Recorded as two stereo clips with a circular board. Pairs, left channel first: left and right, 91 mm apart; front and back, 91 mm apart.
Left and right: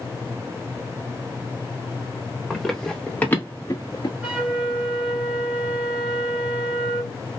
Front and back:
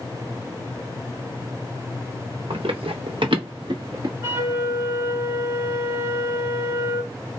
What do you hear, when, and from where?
2.5 s running footsteps: 175° right, 1.2 m; by 4.1 s 135° left, 1.0 m
4.2 s a flute: 155° right, 1.7 m